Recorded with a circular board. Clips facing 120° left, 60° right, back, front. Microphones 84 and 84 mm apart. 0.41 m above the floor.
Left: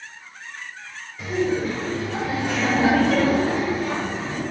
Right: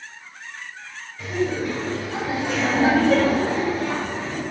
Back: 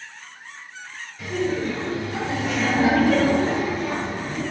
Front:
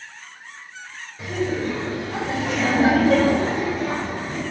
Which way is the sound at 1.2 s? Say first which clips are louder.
Left 1 dB, even; 45° left.